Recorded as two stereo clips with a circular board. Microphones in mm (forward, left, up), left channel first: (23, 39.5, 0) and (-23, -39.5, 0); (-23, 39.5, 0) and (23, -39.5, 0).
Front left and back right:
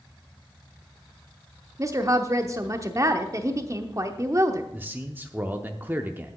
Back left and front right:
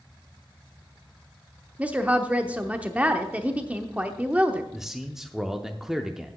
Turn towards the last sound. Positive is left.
turn(degrees=-140)